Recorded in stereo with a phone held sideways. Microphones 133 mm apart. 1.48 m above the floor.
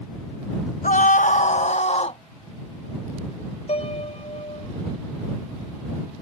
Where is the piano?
55° left (ahead or behind).